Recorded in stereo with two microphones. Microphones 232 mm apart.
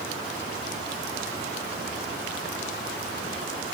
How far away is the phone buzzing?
I don't hear a phone buzzing.